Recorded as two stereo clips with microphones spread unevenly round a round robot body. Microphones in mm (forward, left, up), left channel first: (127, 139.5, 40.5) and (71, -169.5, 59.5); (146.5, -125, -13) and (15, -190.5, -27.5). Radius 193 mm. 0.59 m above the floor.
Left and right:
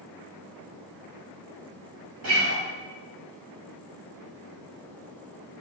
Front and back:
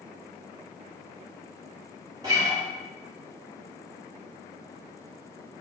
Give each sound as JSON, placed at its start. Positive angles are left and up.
{"t": 2.2, "sound": "a guitar", "azimuth_deg": -110, "distance_m": 1.3}